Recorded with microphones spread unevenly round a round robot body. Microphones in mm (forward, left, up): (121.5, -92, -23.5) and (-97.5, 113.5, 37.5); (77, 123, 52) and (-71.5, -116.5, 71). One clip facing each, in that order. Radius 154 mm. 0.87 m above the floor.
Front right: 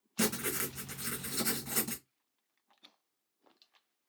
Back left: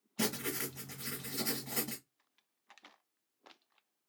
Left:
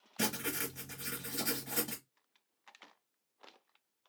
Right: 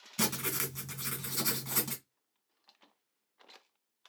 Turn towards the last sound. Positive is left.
turn(degrees=-120)